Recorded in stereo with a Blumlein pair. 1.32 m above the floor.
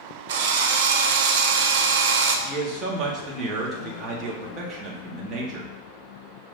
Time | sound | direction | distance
0.3 | a drill | 55° right | 0.6 m
2.5 | a man speaking | 20° right | 1.4 m